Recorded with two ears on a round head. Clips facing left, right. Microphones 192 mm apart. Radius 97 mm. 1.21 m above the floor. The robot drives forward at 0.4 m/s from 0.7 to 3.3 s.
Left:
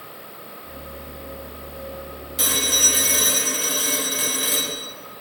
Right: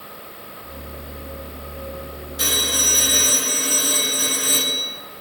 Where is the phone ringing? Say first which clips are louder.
Even; 70° left (ahead or behind), 1.7 m; by 4.8 s 80° left, 1.7 m.